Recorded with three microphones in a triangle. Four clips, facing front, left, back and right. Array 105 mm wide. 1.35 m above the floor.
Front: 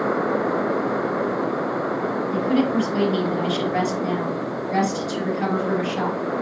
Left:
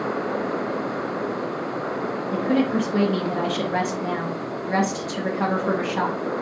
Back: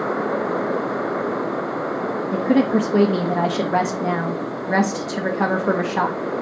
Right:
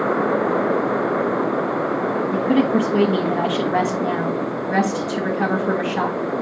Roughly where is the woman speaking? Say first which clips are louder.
Right 3 dB, back 4 dB; behind.